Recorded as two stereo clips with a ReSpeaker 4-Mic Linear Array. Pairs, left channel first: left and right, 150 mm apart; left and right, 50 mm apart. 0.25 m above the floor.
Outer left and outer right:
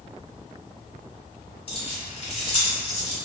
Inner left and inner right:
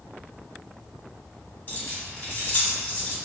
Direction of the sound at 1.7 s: 40° left (ahead or behind).